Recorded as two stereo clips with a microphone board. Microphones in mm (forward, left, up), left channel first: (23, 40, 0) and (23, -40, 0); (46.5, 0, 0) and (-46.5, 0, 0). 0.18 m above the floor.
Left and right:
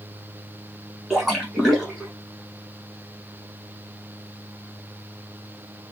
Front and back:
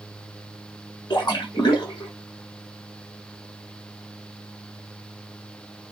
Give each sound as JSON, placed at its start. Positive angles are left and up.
{"t": 1.1, "sound": "a splash", "azimuth_deg": 0, "distance_m": 1.2}